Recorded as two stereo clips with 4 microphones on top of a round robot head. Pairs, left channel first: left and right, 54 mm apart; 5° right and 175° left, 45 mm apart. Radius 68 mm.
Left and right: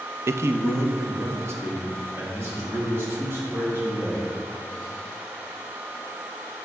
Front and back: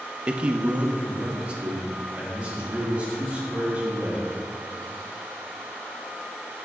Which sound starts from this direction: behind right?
A man speaking, at 0.3 s.